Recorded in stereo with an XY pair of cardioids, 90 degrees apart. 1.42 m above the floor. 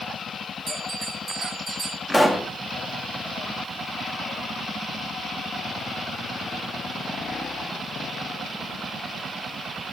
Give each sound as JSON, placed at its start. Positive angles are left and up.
{"t": 0.7, "sound": "a bell", "azimuth_deg": -35, "distance_m": 5.5}
{"t": 2.1, "sound": "a pop", "azimuth_deg": 0, "distance_m": 2.5}